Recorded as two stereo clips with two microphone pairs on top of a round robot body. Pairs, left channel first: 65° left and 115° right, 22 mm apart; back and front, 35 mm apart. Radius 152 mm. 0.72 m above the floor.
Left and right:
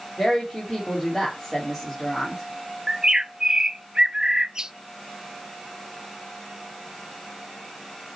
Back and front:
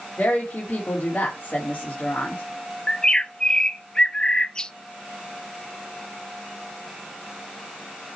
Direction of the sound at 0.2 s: 130° left.